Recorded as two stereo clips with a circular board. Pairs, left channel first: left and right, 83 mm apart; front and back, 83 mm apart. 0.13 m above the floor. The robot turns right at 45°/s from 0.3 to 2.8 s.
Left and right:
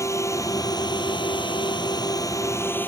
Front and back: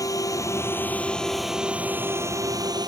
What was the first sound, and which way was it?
A drone, 40° left.